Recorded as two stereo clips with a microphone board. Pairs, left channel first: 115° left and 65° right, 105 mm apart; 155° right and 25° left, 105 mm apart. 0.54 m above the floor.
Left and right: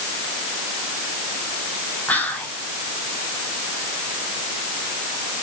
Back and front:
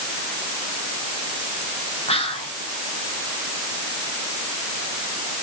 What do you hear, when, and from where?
2.1 s whispering: 170° right, 3.5 m